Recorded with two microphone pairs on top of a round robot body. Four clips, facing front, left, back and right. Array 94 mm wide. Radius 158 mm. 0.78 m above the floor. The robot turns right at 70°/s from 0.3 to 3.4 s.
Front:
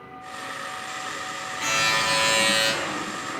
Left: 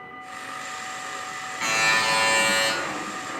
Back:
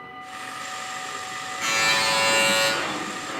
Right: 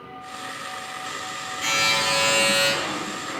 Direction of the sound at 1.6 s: 85° left.